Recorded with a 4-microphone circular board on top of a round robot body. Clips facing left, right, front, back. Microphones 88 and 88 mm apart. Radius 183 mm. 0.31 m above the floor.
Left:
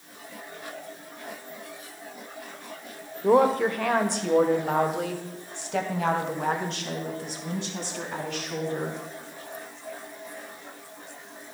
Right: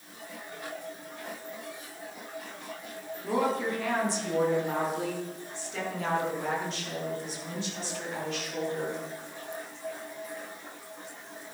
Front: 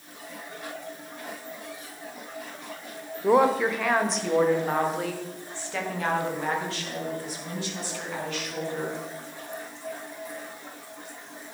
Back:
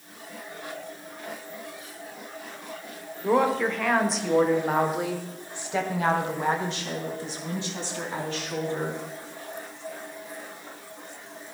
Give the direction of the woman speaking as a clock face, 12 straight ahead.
9 o'clock.